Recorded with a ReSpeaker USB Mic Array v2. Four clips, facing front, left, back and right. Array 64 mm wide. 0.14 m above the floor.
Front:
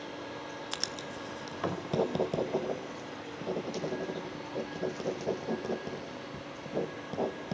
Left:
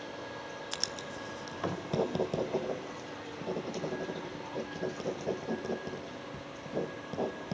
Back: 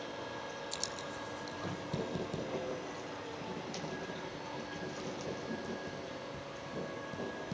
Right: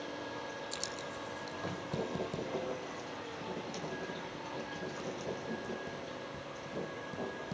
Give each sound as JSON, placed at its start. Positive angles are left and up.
{"t": 0.7, "sound": "writing", "azimuth_deg": 35, "distance_m": 0.9}